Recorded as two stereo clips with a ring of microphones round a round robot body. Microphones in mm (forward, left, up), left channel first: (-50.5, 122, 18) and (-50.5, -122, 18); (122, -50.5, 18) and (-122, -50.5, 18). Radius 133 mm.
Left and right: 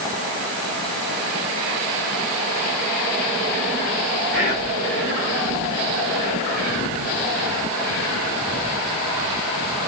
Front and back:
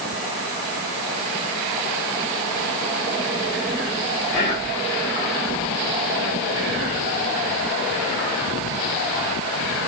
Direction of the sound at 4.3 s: 75° left.